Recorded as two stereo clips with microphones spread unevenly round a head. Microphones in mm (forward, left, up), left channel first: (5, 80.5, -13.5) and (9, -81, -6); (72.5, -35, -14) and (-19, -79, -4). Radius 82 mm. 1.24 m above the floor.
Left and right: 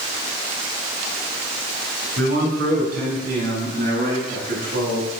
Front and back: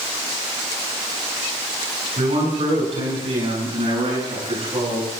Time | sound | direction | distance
2.2 | a man speaking | 130° right | 10 m